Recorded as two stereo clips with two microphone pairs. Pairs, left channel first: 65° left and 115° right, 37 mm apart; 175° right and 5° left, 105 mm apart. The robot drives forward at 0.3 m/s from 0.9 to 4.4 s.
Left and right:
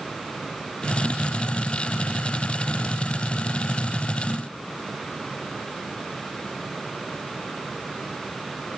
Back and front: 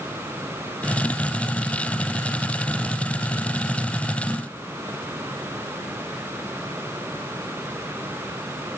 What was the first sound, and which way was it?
Only background noise.